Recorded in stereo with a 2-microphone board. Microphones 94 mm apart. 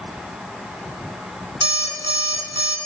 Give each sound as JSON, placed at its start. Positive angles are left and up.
{"t": 1.6, "sound": "an alarm clock", "side_deg": -70, "distance_m": 2.0}